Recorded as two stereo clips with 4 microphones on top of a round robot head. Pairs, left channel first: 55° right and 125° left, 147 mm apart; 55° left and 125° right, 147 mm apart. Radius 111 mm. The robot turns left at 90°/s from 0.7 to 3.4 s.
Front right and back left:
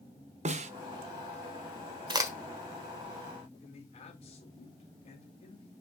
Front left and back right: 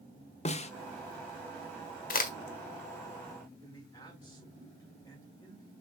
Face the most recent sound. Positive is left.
turn(degrees=-15)